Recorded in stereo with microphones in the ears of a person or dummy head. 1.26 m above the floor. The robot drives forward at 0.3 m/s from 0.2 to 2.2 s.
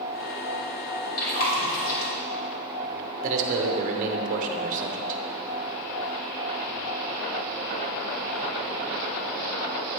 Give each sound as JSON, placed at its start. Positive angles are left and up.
{"t": 1.2, "sound": "chewing", "side_deg": 50, "distance_m": 2.5}
{"t": 3.2, "sound": "a man speaking", "side_deg": -40, "distance_m": 0.9}